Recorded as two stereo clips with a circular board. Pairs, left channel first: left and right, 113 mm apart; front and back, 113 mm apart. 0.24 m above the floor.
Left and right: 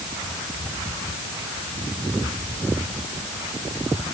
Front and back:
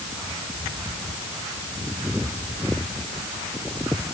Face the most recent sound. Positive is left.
No sound to turn to.